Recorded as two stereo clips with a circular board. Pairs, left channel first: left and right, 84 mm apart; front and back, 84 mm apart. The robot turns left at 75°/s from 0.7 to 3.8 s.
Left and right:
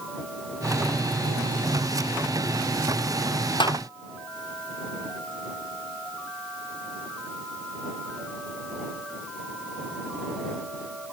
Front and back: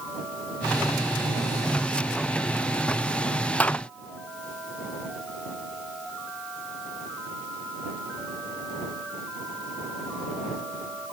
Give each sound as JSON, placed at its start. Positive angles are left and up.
{"t": 3.6, "sound": "a clap", "azimuth_deg": 70}